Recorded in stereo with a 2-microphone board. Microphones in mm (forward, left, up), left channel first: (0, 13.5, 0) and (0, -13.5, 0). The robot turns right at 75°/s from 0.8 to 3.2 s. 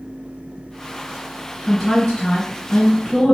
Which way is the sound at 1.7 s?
10° left.